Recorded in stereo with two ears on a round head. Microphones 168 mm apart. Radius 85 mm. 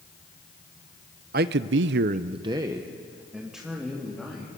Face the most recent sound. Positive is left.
turn(degrees=0)  # may be behind; listen again after turning